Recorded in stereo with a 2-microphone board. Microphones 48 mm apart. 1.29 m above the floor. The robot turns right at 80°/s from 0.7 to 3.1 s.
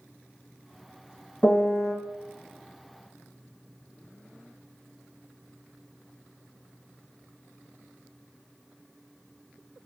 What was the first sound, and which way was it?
A piano, 25° left.